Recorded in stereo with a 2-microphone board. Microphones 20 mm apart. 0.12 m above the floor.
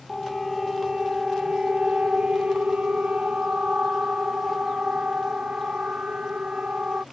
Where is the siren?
Centre (ahead or behind); by 7.0 s 60° right (ahead or behind).